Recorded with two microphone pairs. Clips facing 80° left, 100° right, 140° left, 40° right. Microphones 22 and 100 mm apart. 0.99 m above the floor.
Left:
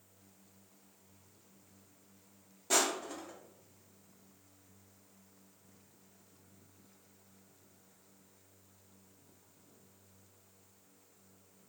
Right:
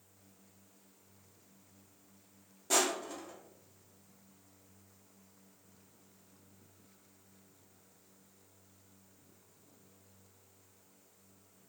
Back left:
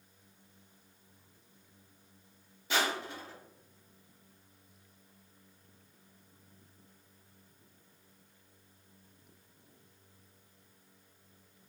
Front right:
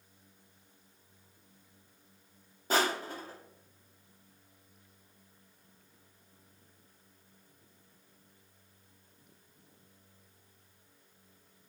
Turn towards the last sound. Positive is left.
turn(degrees=-5)